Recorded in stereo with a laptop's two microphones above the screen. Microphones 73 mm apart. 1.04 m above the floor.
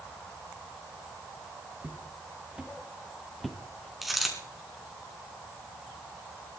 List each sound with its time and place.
1.8 s footsteps: 25° right (ahead or behind), 3.5 m; by 3.9 s 10° left (ahead or behind), 1.6 m
4.0 s a dropped coin: centre (ahead or behind), 4.5 m